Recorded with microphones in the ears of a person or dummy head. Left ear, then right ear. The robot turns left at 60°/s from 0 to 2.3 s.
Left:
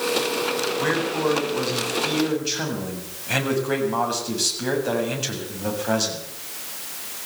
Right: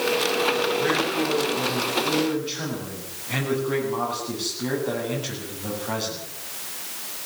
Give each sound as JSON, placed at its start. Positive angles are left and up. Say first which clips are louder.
{"t": 0.8, "sound": "a man speaking", "louder": "even", "azimuth_deg": 170, "distance_m": 7.0}